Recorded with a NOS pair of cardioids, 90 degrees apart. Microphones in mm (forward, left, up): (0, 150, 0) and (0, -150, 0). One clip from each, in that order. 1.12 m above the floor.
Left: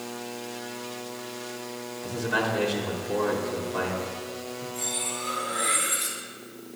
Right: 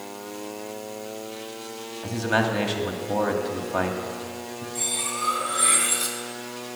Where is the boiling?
No boiling in this recording.